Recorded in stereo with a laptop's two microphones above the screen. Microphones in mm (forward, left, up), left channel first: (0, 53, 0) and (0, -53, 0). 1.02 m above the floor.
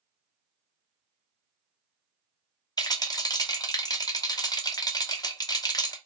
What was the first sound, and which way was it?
A rattle, 40° left (ahead or behind).